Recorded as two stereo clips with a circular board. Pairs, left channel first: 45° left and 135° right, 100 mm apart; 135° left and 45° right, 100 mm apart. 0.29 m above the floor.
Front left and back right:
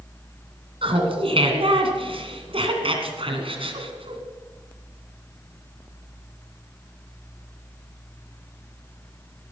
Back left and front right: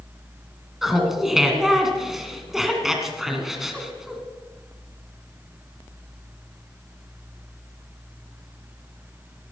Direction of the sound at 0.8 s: 130° right.